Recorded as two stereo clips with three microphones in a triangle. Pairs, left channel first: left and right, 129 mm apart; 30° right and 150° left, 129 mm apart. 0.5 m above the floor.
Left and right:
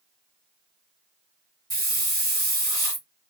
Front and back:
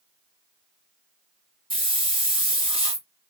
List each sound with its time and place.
1.7 s a hiss: 135° left, 1.7 m